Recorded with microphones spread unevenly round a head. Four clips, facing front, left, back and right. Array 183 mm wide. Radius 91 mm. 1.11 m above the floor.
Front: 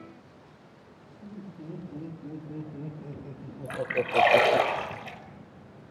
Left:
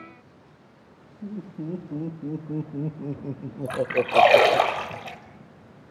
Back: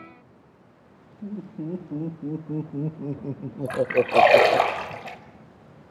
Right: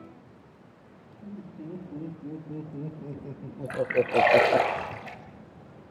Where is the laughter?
140° left, 3 m; by 4.7 s 80° right, 0.7 m.